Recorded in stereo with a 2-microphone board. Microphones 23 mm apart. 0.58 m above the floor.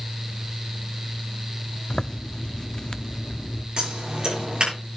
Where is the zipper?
35° left (ahead or behind), 0.6 m.